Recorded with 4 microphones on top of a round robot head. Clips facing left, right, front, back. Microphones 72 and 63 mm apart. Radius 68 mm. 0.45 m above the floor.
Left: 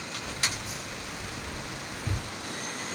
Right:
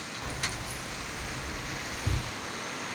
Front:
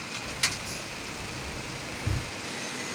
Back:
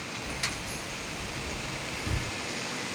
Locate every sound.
0.2 s keys jangling: 95° right, 0.5 m; by 2.3 s 15° right, 1.3 m